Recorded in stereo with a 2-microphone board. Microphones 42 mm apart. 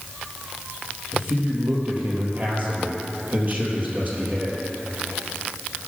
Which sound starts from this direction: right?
A man speaking, at 1.1 s.